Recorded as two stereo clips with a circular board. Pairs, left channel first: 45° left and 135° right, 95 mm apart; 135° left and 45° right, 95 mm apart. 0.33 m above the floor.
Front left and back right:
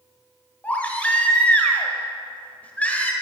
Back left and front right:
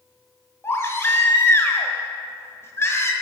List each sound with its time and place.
0.6 s a baby crying: 105° left, 1.0 m